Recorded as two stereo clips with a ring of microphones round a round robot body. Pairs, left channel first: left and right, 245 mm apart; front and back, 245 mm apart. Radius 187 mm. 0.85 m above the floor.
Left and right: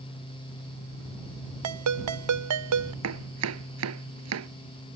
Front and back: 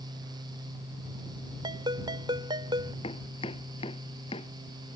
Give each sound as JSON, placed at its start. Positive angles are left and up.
{"t": 1.6, "sound": "a ringtone", "azimuth_deg": -105}
{"t": 3.0, "sound": "chopping", "azimuth_deg": -75}